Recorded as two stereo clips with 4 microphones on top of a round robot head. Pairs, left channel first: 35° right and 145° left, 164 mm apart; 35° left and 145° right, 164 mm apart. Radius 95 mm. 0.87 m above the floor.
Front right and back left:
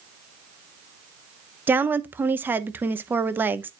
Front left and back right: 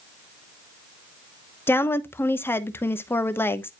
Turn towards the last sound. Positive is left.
turn(degrees=85)